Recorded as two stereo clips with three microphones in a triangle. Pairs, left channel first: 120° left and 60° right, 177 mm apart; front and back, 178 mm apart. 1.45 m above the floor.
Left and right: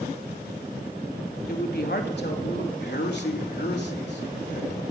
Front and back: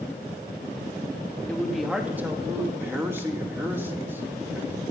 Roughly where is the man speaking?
Left.